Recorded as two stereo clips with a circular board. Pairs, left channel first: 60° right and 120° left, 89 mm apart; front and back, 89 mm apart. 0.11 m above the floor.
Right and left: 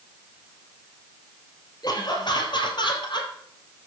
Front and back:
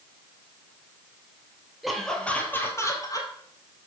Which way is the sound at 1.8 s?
90° right.